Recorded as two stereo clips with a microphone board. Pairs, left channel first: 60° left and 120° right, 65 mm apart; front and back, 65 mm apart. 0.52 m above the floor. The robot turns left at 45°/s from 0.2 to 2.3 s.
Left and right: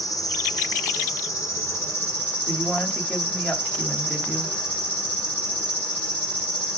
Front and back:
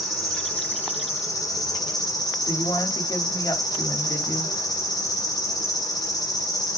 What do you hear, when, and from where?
0.0 s an insect: 90° left, 4 m; by 6.8 s 5° right, 4 m
2.5 s a woman speaking: 10° right, 2.5 m